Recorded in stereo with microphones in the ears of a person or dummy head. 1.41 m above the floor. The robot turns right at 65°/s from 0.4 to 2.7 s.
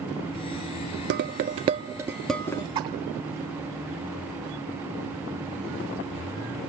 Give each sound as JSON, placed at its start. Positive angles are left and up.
{"t": 1.1, "sound": "dishes clattering", "side_deg": -50, "distance_m": 0.6}
{"t": 2.8, "sound": "a splash", "side_deg": -20, "distance_m": 1.7}